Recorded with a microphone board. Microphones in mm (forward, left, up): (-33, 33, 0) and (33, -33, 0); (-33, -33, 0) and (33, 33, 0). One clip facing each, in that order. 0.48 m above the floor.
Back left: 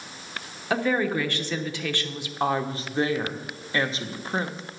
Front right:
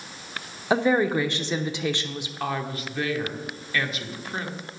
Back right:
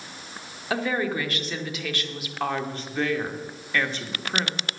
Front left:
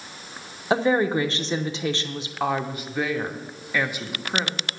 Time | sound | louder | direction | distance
0.7 | a woman speaking | front right 3 dB, front left 6 dB | 10° left | 0.8 m
2.4 | a woman speaking | back left 5 dB, front left 2 dB | 115° left | 0.9 m